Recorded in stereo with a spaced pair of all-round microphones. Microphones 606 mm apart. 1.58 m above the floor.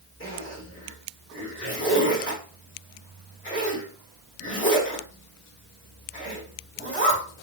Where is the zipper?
20° left (ahead or behind), 1.3 m.